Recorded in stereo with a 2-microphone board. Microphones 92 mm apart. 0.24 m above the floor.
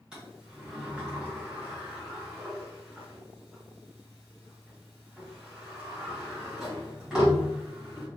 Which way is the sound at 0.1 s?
5° right (ahead or behind).